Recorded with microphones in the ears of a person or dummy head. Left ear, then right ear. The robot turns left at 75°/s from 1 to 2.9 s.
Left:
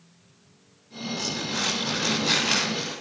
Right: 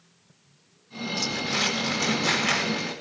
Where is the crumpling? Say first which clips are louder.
Right 2 dB; 30° right, 8 m; by 2.9 s 160° right, 8 m.